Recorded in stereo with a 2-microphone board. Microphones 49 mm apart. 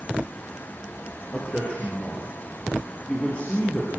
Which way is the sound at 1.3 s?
25° left (ahead or behind).